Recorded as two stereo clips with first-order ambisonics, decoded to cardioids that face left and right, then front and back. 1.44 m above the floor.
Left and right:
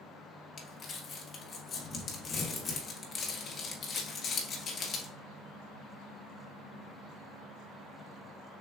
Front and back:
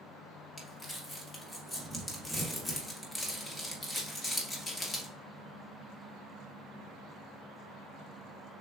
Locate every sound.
0.6 s crumpling: 60° left, 1.0 m